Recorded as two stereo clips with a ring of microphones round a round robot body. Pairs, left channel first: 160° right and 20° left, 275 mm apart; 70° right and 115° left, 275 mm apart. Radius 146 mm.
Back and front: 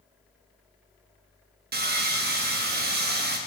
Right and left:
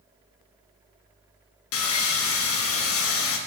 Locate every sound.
1.7 s sawing: 30° right, 1.0 m